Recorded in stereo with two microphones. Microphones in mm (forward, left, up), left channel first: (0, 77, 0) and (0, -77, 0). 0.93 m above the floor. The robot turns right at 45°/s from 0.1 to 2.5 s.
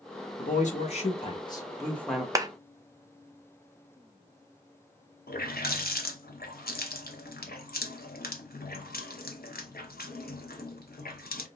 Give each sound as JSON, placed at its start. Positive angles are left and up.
{"t": 0.4, "sound": "a man speaking", "azimuth_deg": 95, "distance_m": 1.2}
{"t": 2.4, "sound": "a clap", "side_deg": -20, "distance_m": 0.5}
{"t": 5.3, "sound": "a running tap", "side_deg": 85, "distance_m": 0.8}